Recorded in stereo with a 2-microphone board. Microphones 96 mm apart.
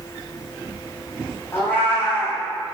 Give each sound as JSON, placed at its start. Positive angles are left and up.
{"t": 1.5, "sound": "a cat meowing", "side_deg": 25, "distance_m": 3.5}